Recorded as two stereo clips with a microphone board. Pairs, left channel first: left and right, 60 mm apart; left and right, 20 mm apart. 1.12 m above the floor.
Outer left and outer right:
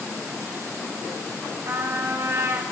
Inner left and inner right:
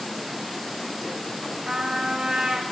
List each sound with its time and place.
1.6 s a trumpet: 55° right (ahead or behind), 3 m